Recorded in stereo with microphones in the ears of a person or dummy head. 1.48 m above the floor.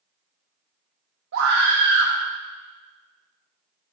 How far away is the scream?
About 1.3 m.